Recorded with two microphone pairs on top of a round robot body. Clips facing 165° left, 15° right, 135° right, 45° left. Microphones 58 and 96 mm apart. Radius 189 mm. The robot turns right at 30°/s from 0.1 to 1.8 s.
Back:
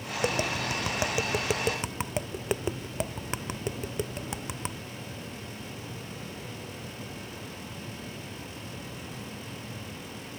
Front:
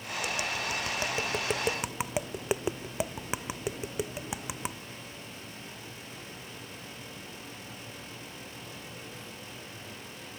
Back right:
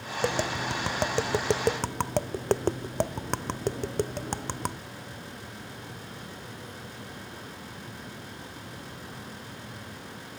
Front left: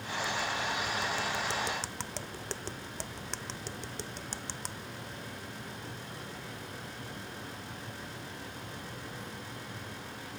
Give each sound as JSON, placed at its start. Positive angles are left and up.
{"t": 0.2, "sound": "tapping", "azimuth_deg": -145}